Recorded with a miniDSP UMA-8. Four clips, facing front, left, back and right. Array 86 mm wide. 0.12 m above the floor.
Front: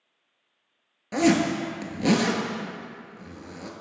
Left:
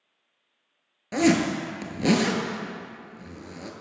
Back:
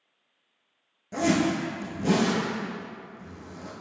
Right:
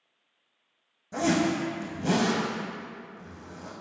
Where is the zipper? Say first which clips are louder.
Left 4 dB, front 3 dB; 60° left, 0.7 m.